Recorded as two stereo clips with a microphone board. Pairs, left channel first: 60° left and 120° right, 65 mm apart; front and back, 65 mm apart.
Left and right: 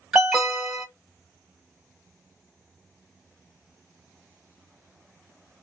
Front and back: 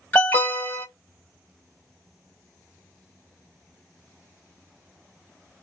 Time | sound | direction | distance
0.1 | an alarm | 30° right | 1.8 m